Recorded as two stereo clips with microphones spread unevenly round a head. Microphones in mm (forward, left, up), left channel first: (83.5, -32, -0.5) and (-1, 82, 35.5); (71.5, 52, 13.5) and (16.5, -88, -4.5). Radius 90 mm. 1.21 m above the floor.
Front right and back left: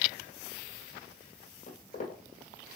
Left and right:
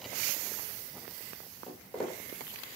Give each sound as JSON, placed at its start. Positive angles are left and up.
{"t": 1.7, "sound": "footsteps", "azimuth_deg": -15, "distance_m": 1.9}